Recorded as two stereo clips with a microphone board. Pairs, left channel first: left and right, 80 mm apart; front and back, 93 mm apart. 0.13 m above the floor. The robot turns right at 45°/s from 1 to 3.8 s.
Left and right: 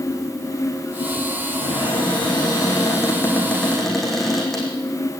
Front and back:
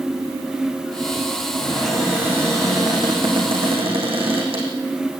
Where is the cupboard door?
75° left, 7 m; by 4.7 s straight behind, 7 m.